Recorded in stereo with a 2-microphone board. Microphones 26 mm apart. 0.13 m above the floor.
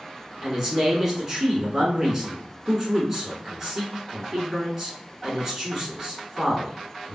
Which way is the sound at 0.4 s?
20° right (ahead or behind).